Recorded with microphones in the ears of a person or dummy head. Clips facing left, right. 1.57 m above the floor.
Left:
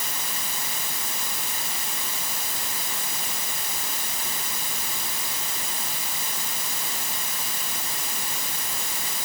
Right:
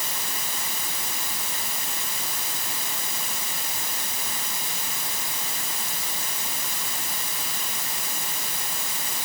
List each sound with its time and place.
Only background noise.